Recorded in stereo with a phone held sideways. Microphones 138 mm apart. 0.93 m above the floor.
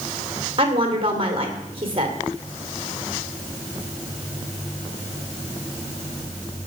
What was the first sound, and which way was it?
A woman speaking, 40° right (ahead or behind).